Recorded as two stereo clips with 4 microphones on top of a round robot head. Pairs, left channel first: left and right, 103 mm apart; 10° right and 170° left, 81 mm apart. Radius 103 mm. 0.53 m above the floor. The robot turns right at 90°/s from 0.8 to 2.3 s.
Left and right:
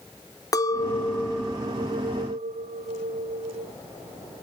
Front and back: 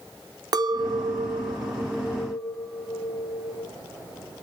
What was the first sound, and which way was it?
A clink, 145° left.